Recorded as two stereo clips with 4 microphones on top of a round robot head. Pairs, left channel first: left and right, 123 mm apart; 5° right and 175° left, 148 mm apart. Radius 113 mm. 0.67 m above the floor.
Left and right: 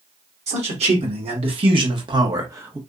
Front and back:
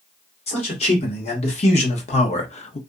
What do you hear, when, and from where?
0.5 s a man speaking: 55° right, 1.7 m; by 2.8 s 20° right, 0.6 m